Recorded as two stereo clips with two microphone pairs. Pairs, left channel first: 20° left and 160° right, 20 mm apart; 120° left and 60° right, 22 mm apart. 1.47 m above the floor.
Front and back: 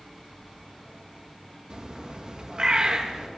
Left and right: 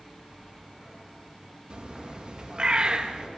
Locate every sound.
1.7 s a bird: 105° right, 2 m